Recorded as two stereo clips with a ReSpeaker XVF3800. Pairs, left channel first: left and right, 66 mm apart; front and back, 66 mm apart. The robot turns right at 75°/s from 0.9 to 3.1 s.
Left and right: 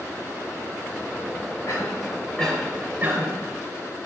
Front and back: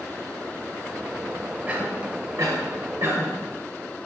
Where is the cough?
110° left, 2 m; by 3.3 s 140° right, 2 m.